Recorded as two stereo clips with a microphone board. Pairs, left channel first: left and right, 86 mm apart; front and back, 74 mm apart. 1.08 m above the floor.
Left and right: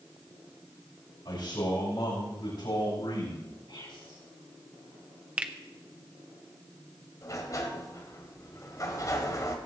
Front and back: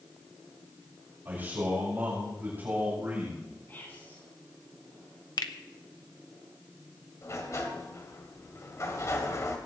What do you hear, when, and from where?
1.2 s a man speaking: 115° left, 5.5 m
3.7 s whispering: 60° left, 10 m
5.4 s a finger snap: 20° right, 1.0 m
7.2 s a sliding door: 45° left, 2 m